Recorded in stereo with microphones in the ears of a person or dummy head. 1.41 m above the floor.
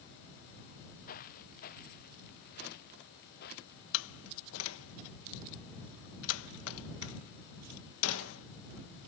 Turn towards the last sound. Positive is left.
turn(degrees=85)